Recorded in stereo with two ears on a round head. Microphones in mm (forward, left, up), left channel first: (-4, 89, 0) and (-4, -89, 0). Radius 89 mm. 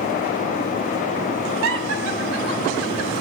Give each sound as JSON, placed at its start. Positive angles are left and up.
{"t": 1.6, "sound": "laughter", "side_deg": -75, "distance_m": 3.0}